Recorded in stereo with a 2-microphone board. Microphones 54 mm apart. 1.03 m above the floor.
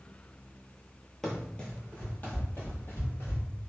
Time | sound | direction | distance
1.2 | running footsteps | 10° left (ahead or behind) | 1.3 m